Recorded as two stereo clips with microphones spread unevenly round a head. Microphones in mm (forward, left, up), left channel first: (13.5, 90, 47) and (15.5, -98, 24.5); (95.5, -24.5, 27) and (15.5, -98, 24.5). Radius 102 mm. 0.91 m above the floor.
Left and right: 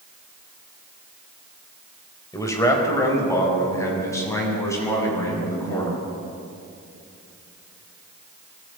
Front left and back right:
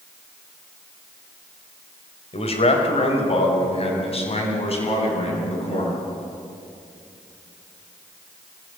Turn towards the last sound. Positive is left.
turn(degrees=15)